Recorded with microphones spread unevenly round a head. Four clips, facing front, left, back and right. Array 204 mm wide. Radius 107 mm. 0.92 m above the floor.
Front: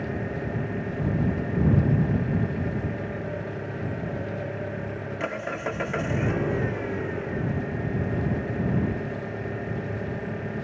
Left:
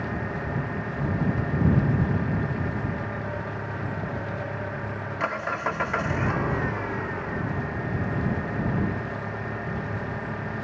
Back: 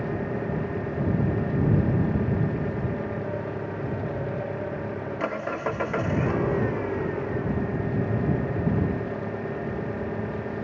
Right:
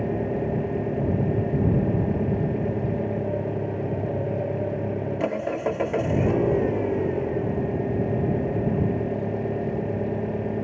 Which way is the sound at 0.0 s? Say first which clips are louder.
Right 6 dB, back 2 dB; 100° right.